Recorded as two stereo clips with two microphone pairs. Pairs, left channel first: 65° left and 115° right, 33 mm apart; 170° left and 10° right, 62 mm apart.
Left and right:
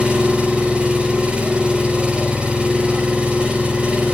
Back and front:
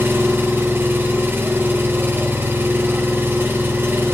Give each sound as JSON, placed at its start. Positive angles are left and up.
{"t": 0.0, "sound": "an engine running", "azimuth_deg": -60, "distance_m": 4.0}